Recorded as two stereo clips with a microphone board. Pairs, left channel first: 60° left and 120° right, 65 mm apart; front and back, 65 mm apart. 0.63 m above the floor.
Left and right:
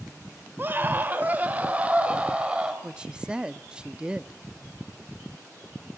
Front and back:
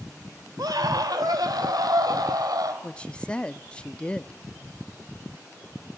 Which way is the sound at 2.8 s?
55° right.